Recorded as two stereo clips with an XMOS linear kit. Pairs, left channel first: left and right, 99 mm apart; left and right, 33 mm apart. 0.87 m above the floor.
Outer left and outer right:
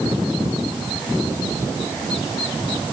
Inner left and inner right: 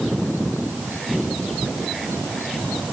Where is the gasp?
I don't hear a gasp.